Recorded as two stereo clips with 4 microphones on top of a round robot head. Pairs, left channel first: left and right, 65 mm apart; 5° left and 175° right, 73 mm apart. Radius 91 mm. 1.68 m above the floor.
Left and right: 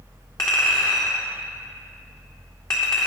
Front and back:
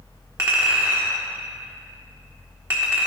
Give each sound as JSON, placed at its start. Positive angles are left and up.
{"t": 0.4, "sound": "a clink", "azimuth_deg": 145, "distance_m": 0.9}